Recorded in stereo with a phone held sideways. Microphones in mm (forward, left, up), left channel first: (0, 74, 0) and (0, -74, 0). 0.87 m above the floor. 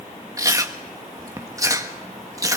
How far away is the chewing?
About 1.2 m.